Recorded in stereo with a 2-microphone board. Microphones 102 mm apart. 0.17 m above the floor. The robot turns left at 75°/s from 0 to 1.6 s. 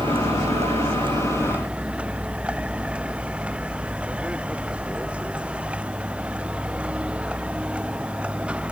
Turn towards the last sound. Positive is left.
turn(degrees=-170)